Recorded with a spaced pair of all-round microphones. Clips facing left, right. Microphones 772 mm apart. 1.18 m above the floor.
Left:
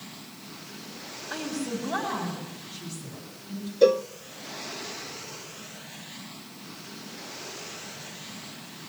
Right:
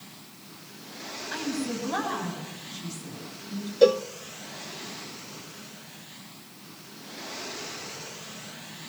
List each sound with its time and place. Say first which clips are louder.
1.3 s a woman speaking: right 1 dB; 70° left (ahead or behind), 7 m; by 3.7 s 60° left (ahead or behind), 10 m
3.8 s a cowbell: right 1 dB; 30° right (ahead or behind), 0.5 m